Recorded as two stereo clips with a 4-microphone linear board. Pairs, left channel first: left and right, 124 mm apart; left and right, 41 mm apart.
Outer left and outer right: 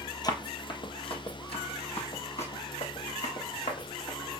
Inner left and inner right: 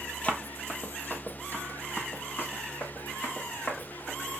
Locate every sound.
0.2 s running footsteps: 35° left (ahead or behind), 0.9 m; by 4.4 s 60° left (ahead or behind), 3 m